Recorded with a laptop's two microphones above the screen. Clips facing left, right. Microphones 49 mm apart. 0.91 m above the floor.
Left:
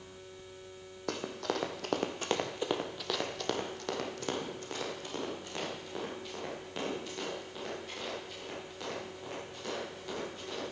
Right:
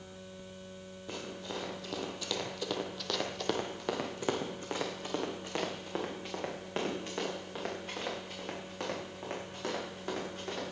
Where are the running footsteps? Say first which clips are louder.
Left 6 dB; 65° left (ahead or behind), 2 m; by 10.7 s 40° right (ahead or behind), 10 m.